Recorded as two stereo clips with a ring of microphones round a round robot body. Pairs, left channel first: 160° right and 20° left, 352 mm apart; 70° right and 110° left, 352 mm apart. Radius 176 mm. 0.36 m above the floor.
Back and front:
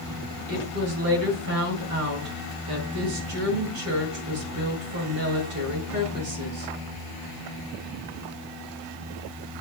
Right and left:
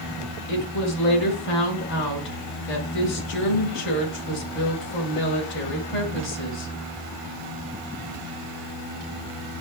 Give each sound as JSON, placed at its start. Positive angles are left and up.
{"t": 0.5, "sound": "a woman speaking", "azimuth_deg": -15, "distance_m": 2.0}